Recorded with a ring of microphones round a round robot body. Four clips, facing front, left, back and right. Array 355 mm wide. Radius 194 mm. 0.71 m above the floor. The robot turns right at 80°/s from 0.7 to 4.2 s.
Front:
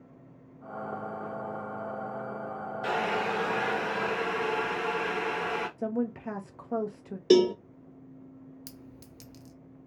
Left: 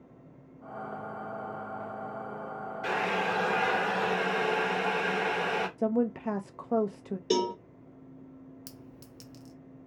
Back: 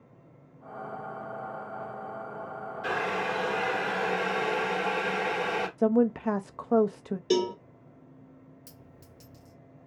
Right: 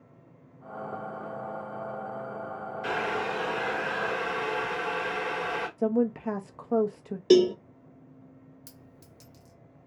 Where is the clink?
30° left, 0.5 m.